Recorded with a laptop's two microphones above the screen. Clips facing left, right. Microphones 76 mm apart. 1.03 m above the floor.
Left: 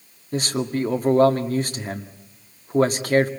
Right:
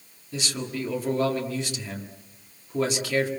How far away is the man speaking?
About 1.9 m.